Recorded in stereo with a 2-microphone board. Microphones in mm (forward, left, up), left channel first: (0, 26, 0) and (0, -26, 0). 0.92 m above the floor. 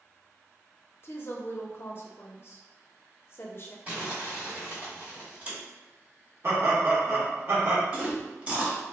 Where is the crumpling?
25° right (ahead or behind), 1.3 m.